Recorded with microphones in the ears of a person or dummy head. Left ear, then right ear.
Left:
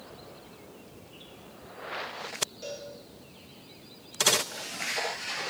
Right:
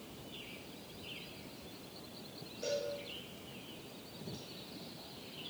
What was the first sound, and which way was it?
A cowbell, 15° left (ahead or behind).